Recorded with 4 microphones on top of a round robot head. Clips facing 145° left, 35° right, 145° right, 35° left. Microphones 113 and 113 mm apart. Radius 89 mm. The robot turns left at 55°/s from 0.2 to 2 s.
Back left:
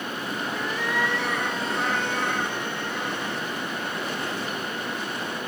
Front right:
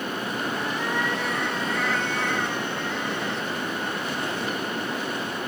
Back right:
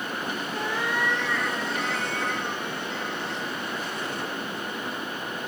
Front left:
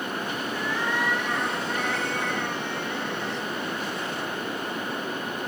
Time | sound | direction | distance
0.5 | a cat meowing | 150° left | 3 m